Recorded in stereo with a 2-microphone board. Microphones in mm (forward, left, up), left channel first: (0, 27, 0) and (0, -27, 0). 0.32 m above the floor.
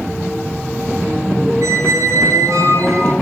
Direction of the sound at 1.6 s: 90° right.